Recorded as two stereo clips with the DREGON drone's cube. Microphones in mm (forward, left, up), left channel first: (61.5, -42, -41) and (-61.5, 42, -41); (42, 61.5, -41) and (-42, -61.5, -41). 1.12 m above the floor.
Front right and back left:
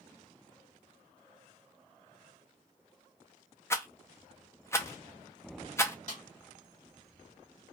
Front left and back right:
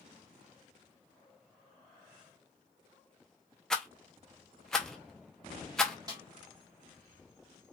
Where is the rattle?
25° right, 0.6 m.